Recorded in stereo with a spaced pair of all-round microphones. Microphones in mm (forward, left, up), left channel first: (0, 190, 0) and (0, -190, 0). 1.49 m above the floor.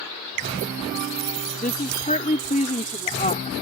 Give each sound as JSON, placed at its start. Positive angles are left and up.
{"t": 1.6, "sound": "a woman speaking", "side_deg": 20}